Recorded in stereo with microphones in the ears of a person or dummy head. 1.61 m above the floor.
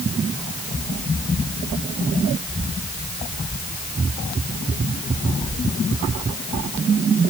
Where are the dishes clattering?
I don't hear dishes clattering.